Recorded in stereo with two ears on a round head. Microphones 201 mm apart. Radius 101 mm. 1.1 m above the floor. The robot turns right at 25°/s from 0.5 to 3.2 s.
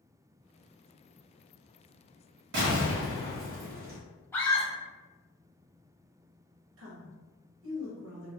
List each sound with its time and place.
2.5 s an explosion: 55° right (ahead or behind), 1.5 m; by 4.0 s 45° right (ahead or behind), 1.5 m
4.3 s a scream: 10° left (ahead or behind), 0.8 m
6.8 s a woman speaking: 65° right (ahead or behind), 1.3 m